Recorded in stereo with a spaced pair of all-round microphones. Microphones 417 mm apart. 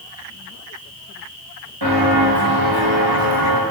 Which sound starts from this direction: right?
Footsteps, at 1.8 s.